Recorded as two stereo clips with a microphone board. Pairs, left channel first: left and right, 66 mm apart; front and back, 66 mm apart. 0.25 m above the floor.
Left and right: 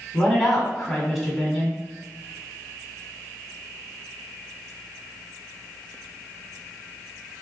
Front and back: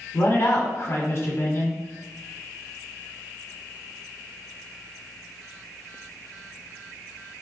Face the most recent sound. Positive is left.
turn(degrees=0)